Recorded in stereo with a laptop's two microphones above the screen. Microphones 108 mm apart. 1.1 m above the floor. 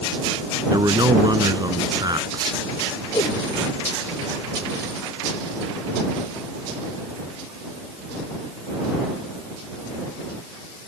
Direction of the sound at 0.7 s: 40° right (ahead or behind).